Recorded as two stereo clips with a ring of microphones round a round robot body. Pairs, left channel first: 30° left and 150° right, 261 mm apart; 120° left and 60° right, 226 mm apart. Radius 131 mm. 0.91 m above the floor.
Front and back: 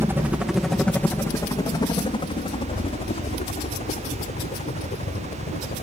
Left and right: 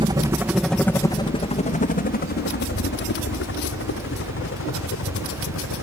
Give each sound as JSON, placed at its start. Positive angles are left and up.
{"t": 0.0, "sound": "a helicopter", "azimuth_deg": -85}